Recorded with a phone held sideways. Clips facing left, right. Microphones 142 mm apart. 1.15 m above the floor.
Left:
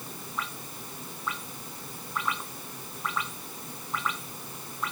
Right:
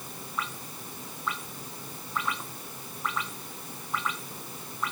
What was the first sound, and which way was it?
Only background noise.